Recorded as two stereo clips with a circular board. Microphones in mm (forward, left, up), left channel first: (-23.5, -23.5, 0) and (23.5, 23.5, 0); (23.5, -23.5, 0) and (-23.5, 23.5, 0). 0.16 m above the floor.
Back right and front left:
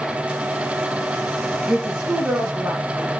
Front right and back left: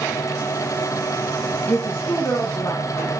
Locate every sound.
1.7 s a woman speaking: 25° right, 1.4 m; by 2.8 s 20° right, 2.0 m